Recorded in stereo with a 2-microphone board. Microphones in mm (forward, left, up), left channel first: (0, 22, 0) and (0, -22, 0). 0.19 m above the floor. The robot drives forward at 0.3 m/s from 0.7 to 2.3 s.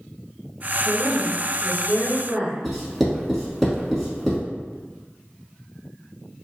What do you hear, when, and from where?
0.8 s a woman speaking: 35° right (ahead or behind), 1.2 m; by 2.5 s 30° right (ahead or behind), 1.5 m
2.6 s writing: centre (ahead or behind), 1.1 m